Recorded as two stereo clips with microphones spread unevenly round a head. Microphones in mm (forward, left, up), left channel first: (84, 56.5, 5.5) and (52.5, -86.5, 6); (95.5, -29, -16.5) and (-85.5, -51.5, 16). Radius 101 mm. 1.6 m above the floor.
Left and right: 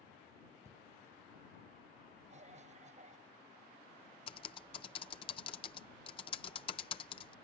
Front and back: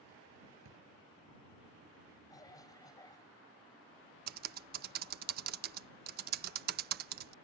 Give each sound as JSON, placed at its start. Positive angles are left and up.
{"t": 0.7, "sound": "a drawer", "azimuth_deg": 180}
{"t": 2.3, "sound": "a cough", "azimuth_deg": -65}
{"t": 4.3, "sound": "typing on a keyboard", "azimuth_deg": 145}